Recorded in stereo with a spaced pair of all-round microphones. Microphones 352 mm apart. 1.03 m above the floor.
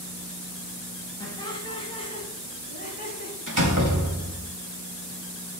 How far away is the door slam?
About 4 m.